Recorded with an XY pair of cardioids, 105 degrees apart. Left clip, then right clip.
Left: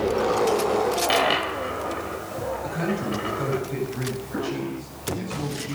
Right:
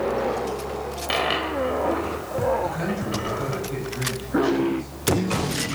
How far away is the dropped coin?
About 3 m.